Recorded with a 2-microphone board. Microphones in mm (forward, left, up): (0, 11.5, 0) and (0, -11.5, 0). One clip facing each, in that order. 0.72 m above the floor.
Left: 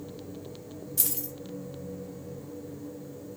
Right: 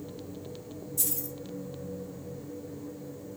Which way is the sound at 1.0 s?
60° left (ahead or behind).